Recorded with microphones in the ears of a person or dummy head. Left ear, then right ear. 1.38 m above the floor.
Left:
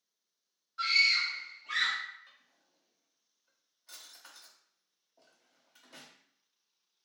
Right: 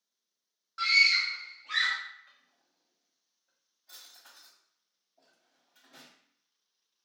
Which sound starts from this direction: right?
A scream, at 0.8 s.